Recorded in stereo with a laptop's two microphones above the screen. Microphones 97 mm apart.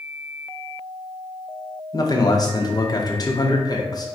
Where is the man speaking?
40° left (ahead or behind), 0.7 m.